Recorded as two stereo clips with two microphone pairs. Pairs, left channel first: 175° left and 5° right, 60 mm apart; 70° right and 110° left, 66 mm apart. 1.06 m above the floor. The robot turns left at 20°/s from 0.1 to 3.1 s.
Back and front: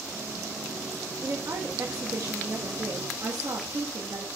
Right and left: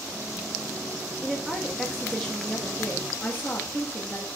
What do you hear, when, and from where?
1.2 s a woman speaking: 30° left, 1.2 m; by 4.3 s 10° right, 1.2 m